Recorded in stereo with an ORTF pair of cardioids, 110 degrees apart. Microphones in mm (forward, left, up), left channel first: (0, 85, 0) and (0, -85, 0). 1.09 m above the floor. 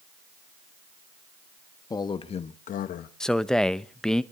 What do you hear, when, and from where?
1.9 s a man speaking: 25° left, 1.9 m; by 3.1 s 75° left, 1.7 m
3.2 s a man speaking: 5° left, 0.8 m